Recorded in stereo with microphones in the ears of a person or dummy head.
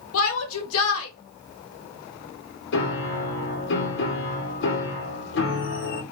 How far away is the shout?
About 1.2 m.